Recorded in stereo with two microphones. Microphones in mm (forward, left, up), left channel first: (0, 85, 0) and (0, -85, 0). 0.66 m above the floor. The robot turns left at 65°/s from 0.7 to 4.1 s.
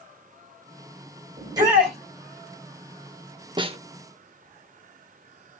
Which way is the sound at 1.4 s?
145° right.